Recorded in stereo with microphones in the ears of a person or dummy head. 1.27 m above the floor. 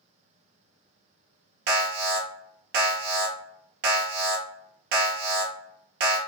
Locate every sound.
1.7 s an alarm: 55° right (ahead or behind), 0.7 m